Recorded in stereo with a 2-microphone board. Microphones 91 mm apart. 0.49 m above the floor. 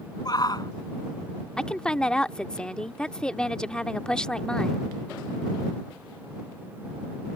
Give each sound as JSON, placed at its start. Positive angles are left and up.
{"t": 0.2, "sound": "a shout", "side_deg": 45}
{"t": 1.6, "sound": "a woman speaking", "side_deg": 10}